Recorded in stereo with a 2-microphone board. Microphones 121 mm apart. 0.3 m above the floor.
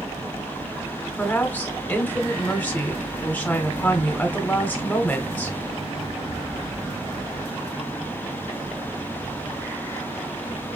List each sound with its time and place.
1.2 s a woman speaking: 15° left (ahead or behind), 1.0 m